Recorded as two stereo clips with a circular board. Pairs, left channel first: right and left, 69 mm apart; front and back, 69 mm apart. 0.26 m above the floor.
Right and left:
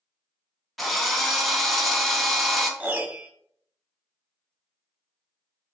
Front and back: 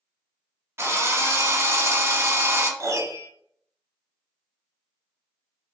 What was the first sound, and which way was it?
A drill, straight behind.